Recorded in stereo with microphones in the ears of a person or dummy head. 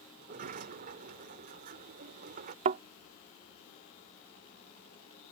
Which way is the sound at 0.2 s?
45° right (ahead or behind).